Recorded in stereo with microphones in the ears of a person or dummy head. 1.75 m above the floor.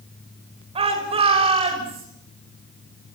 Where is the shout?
35° right (ahead or behind), 7 m.